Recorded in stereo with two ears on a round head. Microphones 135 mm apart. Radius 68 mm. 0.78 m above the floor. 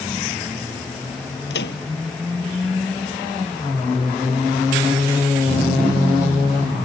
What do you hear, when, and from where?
1.5 s a microwave: 90° left